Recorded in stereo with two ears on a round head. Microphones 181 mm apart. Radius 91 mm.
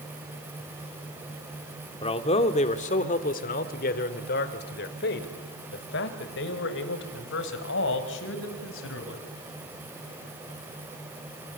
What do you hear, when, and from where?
2.0 s a man speaking: 30° left (ahead or behind), 1.9 m; by 9.2 s 75° left (ahead or behind), 5 m